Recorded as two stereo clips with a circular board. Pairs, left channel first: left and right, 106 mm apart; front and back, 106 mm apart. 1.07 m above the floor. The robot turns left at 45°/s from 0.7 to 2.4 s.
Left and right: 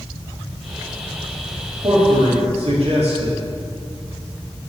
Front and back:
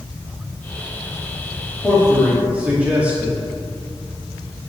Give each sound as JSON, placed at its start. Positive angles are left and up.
{"t": 1.8, "sound": "a man speaking", "azimuth_deg": -80, "distance_m": 2.5}